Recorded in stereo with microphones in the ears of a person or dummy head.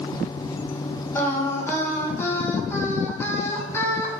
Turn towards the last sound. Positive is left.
turn(degrees=15)  # may be behind; listen again after turning